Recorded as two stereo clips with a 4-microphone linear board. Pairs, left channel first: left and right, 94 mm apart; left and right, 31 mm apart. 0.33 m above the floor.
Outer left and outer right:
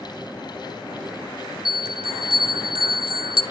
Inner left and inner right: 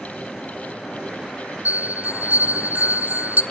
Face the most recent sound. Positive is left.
turn(degrees=-70)  # may be behind; listen again after turning